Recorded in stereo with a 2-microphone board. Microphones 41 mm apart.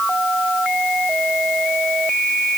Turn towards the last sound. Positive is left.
No sound to turn to.